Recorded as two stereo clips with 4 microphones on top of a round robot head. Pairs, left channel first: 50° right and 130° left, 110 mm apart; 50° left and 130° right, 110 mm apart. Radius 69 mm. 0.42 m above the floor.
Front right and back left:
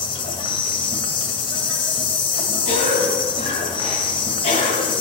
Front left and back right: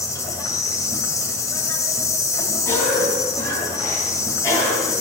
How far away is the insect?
About 2 m.